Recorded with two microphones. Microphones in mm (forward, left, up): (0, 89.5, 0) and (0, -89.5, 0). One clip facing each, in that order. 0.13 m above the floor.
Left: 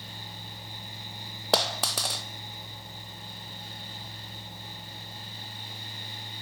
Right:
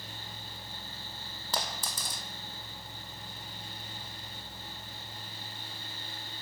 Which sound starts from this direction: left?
A dropped coin, at 1.5 s.